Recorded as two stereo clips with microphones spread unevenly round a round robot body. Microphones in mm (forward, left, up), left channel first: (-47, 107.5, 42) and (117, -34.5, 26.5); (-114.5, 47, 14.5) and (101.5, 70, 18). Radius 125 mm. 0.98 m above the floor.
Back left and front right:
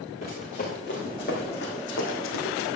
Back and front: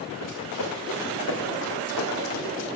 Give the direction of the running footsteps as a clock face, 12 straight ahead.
5 o'clock.